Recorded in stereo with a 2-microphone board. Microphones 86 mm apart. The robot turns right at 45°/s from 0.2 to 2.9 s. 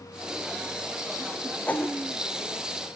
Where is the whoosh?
15° left (ahead or behind), 1.4 m; by 1.9 s 30° left (ahead or behind), 1.4 m.